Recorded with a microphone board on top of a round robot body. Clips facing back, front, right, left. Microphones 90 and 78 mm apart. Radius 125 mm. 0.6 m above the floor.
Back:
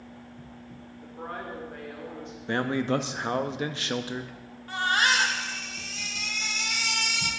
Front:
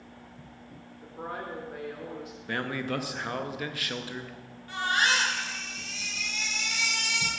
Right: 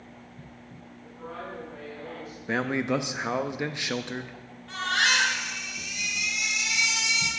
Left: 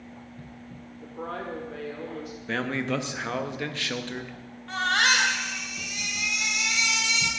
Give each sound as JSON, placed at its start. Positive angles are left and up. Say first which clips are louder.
{"t": 1.0, "sound": "a woman speaking", "louder": "even, left 5 dB", "azimuth_deg": 85, "distance_m": 1.7}
{"t": 2.5, "sound": "a man speaking", "louder": "back 6 dB, right 2 dB", "azimuth_deg": -150, "distance_m": 0.8}
{"t": 4.7, "sound": "a baby crying", "louder": "back 2 dB, left 2 dB", "azimuth_deg": 135, "distance_m": 2.0}